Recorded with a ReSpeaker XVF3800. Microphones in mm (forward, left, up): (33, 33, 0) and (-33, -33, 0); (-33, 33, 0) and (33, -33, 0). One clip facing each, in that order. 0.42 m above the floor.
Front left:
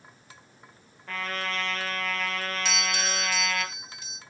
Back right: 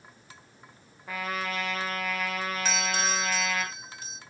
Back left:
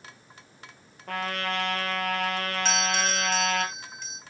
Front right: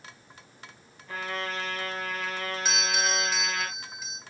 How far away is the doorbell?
About 1.6 m.